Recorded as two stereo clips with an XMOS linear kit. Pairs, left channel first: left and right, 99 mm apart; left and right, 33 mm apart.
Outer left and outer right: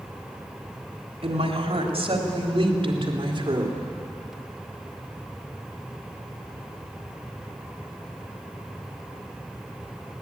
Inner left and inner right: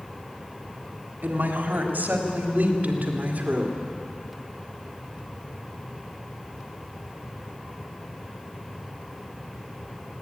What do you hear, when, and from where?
1.2 s a woman speaking: 80° right, 3.5 m; by 3.8 s 55° right (ahead or behind), 3 m